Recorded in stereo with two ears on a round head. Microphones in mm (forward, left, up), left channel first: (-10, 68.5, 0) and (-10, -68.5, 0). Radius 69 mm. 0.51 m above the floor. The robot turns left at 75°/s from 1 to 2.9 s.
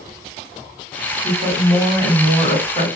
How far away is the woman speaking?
About 2.0 m.